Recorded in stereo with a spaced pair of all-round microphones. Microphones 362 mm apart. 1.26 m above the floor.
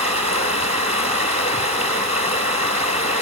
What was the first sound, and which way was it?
Running water, 15° left (ahead or behind).